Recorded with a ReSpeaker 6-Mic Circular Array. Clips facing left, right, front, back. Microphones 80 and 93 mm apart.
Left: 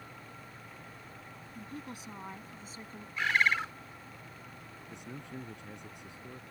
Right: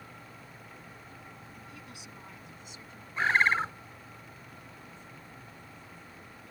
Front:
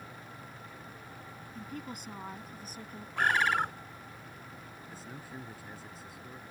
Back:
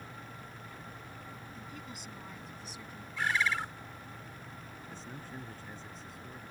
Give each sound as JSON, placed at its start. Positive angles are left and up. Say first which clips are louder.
{"t": 1.6, "sound": "a woman speaking", "louder": "left 4 dB, front 4 dB", "azimuth_deg": 40}
{"t": 3.2, "sound": "a bird", "louder": "right 3 dB, front 4 dB", "azimuth_deg": -30}
{"t": 4.9, "sound": "a man speaking", "louder": "left 5 dB, even", "azimuth_deg": 85}